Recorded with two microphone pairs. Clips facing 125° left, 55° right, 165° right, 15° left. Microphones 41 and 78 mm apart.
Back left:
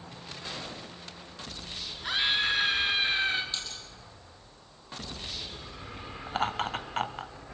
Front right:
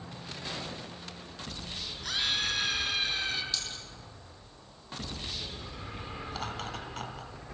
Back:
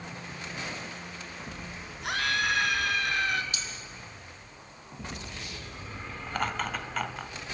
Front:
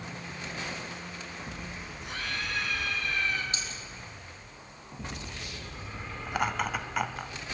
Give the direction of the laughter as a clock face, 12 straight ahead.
9 o'clock.